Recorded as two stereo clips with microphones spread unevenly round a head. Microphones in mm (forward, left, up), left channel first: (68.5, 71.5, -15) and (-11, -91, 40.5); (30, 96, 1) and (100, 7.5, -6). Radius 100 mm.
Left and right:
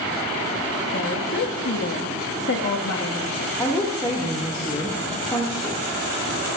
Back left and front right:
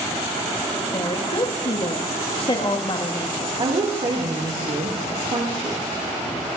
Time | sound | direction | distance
0.9 | a woman speaking | 85° left | 2.0 m
3.6 | a woman speaking | 10° right | 2 m